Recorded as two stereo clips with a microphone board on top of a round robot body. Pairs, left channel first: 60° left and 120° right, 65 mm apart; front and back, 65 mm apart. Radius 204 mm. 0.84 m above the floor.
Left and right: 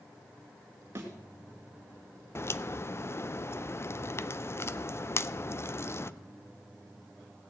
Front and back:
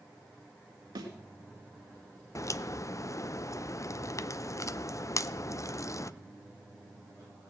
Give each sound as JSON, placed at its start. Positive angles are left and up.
{"t": 0.9, "sound": "a thud", "azimuth_deg": -170, "distance_m": 1.9}
{"t": 2.4, "sound": "a crack", "azimuth_deg": 20, "distance_m": 0.7}